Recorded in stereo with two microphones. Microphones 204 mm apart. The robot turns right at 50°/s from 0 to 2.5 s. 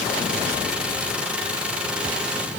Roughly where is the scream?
No scream in this recording.